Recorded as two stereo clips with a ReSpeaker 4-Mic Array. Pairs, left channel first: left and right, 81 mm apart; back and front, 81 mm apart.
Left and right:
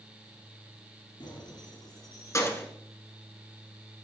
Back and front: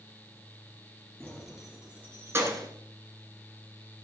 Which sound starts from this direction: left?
Keys jangling, at 1.2 s.